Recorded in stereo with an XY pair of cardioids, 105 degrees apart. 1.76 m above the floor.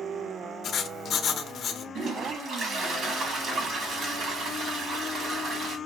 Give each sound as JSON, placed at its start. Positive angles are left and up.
{"t": 0.6, "sound": "writing", "azimuth_deg": 60, "distance_m": 0.9}
{"t": 1.9, "sound": "a toilet flushing", "azimuth_deg": -55, "distance_m": 2.5}